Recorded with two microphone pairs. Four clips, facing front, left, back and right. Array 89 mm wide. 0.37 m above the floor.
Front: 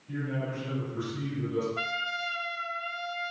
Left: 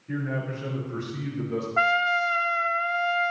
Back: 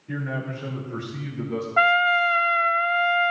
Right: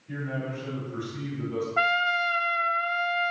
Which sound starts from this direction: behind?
A trumpet, at 1.8 s.